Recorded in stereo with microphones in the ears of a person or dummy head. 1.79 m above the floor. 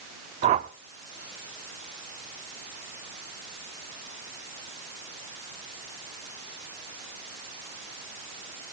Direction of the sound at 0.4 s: 35° right (ahead or behind).